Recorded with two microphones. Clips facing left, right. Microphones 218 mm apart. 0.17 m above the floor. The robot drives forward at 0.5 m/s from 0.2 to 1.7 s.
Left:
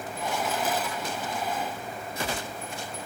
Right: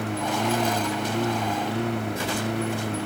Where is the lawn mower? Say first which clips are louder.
Right 6 dB; 70° right (ahead or behind).